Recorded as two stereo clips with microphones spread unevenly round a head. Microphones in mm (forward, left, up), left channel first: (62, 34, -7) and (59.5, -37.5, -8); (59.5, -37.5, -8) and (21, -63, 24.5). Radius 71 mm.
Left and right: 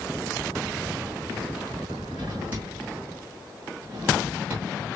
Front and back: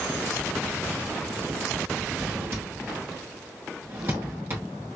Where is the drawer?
165° right, 2 m.